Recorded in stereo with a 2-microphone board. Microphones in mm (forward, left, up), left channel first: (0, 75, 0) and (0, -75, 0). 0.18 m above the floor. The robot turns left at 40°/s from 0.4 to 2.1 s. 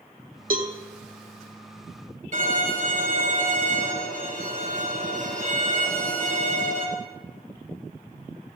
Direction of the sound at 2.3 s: 50° right (ahead or behind).